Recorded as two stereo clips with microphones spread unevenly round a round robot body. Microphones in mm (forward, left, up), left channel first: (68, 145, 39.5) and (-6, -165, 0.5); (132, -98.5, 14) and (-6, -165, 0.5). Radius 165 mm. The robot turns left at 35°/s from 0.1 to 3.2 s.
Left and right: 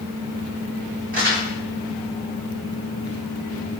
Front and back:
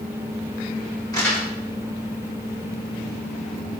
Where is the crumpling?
45° right, 2 m; by 1.5 s 55° right, 2 m.